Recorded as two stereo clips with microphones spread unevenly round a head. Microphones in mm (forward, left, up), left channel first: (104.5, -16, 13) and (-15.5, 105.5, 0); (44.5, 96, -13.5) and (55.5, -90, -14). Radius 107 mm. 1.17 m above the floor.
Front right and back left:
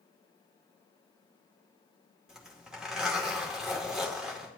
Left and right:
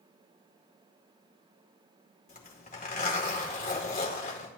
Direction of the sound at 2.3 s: 50° left.